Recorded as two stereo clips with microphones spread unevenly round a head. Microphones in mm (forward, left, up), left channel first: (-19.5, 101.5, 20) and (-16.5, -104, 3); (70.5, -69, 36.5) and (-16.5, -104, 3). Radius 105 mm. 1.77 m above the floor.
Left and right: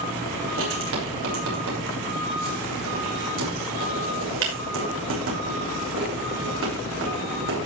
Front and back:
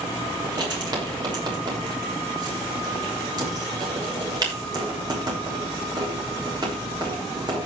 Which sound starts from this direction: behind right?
Writing, at 0.4 s.